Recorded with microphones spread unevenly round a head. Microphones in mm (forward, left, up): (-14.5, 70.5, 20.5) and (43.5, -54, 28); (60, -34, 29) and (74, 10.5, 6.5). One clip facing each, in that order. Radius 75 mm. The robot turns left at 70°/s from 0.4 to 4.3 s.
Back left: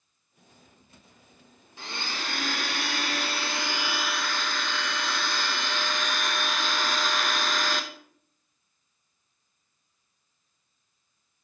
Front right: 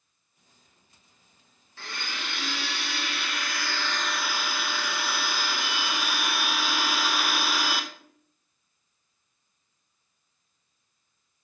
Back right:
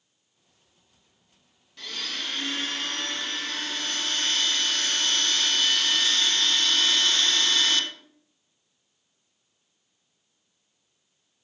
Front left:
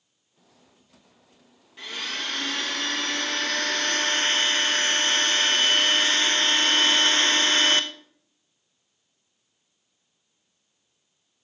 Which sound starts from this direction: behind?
A blender, at 1.8 s.